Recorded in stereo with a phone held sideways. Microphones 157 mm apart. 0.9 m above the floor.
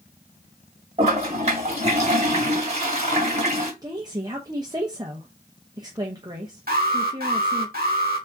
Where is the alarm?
75° right (ahead or behind), 1.6 m.